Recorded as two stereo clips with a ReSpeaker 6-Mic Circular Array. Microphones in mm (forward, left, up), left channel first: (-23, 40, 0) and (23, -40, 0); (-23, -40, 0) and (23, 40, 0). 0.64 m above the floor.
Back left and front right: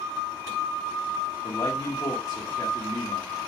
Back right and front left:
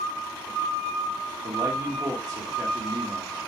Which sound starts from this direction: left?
A man speaking, at 1.4 s.